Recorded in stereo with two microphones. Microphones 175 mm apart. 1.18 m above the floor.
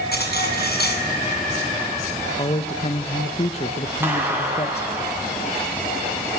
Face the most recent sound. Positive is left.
turn(degrees=-10)  # may be behind; listen again after turning